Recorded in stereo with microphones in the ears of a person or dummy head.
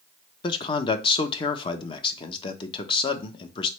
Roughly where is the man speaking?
Left.